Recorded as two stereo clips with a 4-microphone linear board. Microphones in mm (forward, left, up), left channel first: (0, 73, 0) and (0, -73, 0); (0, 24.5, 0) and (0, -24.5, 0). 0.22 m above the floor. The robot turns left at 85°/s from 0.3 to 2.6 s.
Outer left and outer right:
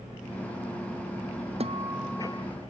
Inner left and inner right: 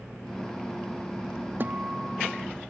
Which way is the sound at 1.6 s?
135° right.